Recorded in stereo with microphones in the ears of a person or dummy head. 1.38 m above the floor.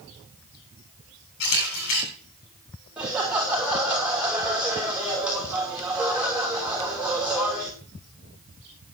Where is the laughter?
10° right (ahead or behind), 2.5 m.